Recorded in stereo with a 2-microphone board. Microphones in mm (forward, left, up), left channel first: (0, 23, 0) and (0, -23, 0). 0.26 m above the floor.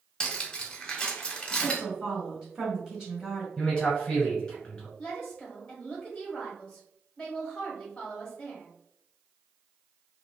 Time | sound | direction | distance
0.2 | cutlery clinking | 20° left (ahead or behind) | 0.8 m
1.6 | a woman speaking | 10° right (ahead or behind) | 1.6 m
3.6 | a man speaking | 20° left (ahead or behind) | 1.6 m
5.0 | a woman speaking | 15° left (ahead or behind) | 1.0 m